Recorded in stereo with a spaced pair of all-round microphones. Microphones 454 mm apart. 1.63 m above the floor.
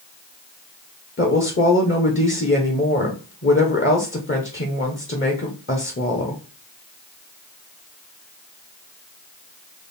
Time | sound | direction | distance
1.2 | a woman speaking | 30° left (ahead or behind) | 0.7 m